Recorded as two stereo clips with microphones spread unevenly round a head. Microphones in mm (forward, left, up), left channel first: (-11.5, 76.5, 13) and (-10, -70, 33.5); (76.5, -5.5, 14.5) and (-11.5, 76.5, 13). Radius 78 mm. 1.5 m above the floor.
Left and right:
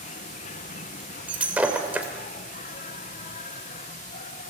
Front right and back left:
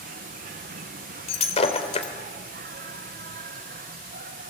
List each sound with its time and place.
0.0 s an insect: 135° left, 0.9 m
1.3 s breaking glass: 10° right, 2.5 m